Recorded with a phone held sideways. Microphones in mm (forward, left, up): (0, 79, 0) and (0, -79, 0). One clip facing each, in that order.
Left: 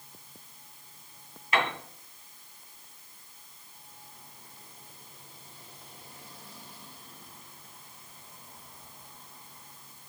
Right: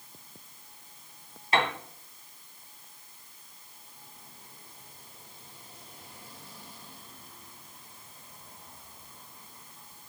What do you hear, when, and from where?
1.5 s a piano: 35° right (ahead or behind), 1.9 m